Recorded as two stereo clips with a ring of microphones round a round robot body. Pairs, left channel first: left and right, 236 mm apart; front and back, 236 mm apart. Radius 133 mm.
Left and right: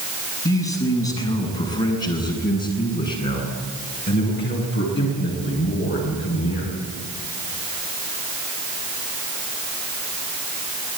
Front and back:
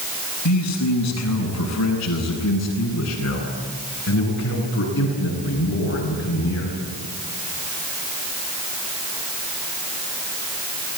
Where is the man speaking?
25° left, 6.5 m; by 6.7 s 50° left, 9.5 m.